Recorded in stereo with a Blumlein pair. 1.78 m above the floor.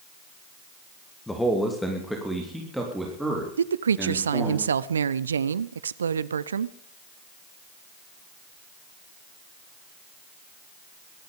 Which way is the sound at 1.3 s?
5° left.